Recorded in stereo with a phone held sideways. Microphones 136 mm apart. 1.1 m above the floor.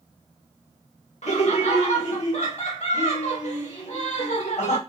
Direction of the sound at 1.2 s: 55° left (ahead or behind).